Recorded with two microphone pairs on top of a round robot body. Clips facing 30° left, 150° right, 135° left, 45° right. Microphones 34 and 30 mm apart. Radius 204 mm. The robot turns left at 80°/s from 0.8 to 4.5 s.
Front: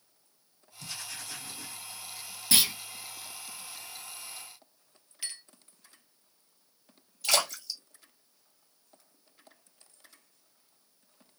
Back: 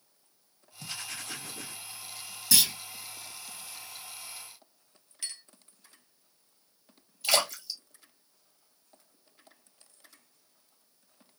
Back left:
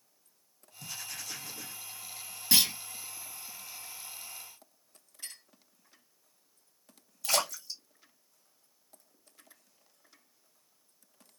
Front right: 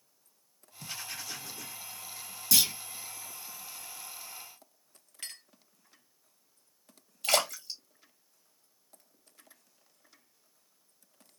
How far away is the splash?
About 2.0 m.